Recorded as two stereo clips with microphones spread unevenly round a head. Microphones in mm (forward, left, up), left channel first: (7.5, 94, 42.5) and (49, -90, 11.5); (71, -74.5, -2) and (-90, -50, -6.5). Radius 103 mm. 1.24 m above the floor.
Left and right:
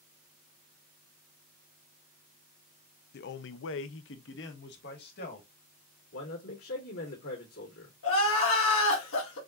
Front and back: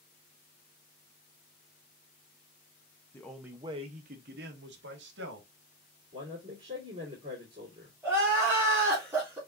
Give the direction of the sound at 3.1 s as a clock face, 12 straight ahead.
10 o'clock.